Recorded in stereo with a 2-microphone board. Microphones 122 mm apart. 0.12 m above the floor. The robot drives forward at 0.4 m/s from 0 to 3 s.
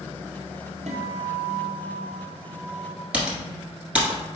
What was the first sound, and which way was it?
A guitar, 65° right (ahead or behind).